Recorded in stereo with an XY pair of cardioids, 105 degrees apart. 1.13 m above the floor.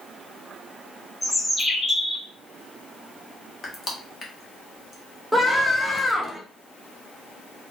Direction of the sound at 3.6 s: 25° left.